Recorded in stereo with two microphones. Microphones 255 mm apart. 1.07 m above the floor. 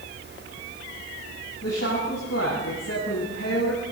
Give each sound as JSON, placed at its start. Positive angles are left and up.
{"t": 1.6, "sound": "a woman speaking", "side_deg": 70, "distance_m": 9.5}